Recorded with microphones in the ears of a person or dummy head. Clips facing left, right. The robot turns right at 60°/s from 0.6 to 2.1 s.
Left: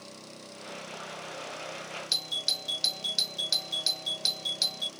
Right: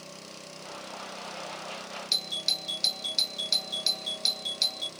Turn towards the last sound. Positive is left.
turn(degrees=5)  # may be behind; listen again after turning